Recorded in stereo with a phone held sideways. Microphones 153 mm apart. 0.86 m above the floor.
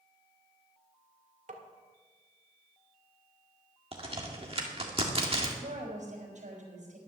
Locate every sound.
1.5 s tapping: 65° right (ahead or behind), 1.6 m
3.9 s a crack: 40° right (ahead or behind), 1.7 m
5.6 s a woman speaking: 60° right (ahead or behind), 4 m